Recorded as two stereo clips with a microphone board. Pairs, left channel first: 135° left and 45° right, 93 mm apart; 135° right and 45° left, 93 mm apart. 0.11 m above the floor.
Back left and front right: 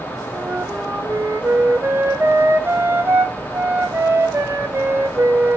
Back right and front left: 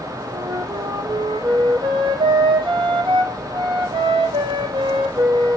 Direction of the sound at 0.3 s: 20° left.